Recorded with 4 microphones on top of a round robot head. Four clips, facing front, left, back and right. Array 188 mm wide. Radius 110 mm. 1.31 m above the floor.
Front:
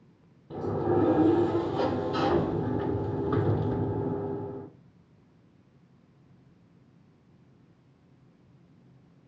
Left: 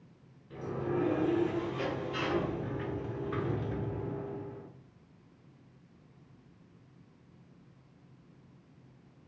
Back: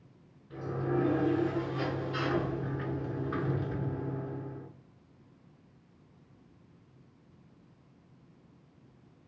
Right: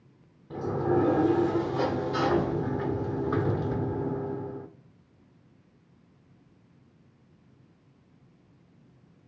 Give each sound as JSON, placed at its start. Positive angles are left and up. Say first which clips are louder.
{"t": 0.5, "sound": "a sliding door", "louder": "right 8 dB, front 6 dB", "azimuth_deg": -45, "distance_m": 1.4}